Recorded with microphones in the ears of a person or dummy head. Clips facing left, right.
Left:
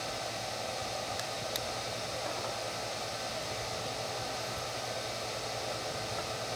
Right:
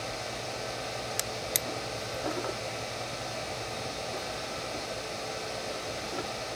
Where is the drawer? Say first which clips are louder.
Right 2 dB; 35° right (ahead or behind).